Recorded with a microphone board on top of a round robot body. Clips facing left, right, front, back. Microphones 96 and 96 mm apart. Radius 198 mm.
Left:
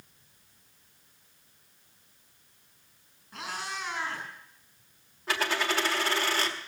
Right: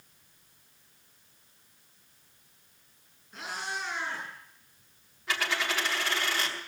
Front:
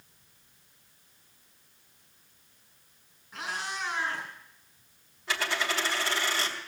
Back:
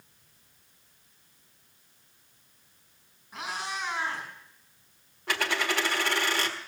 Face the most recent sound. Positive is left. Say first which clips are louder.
# left 2 dB, back 2 dB
turn(degrees=145)